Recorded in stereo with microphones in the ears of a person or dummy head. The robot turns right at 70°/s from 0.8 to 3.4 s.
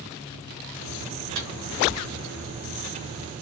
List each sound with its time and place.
1.4 s a microwave: 75° right (ahead or behind), 1.1 m; by 1.5 s 85° right, 1.1 m